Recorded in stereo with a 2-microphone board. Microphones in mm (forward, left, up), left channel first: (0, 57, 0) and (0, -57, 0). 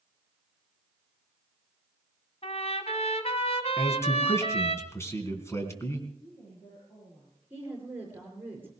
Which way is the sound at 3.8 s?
25° left (ahead or behind).